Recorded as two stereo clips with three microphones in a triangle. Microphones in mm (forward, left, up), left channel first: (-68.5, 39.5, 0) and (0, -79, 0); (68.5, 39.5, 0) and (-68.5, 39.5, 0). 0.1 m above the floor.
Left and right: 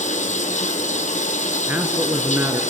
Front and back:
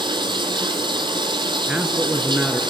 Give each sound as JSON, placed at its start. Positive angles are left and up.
{"t": 0.0, "sound": "running water", "azimuth_deg": 130, "distance_m": 1.1}
{"t": 1.7, "sound": "a man speaking", "azimuth_deg": -110, "distance_m": 1.1}